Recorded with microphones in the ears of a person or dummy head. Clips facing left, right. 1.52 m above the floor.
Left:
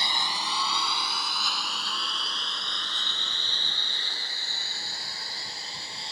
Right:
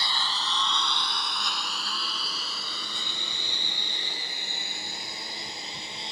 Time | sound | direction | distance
0.0 | a lawn mower | 15° left (ahead or behind) | ?